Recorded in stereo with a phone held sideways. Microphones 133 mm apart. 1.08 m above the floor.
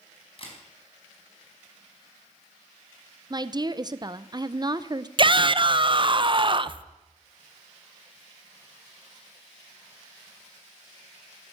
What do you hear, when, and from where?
0.4 s a camera shutter: 45° left (ahead or behind), 4.5 m
3.3 s a woman speaking: 30° right (ahead or behind), 0.7 m
5.2 s a shout: 40° right (ahead or behind), 0.6 m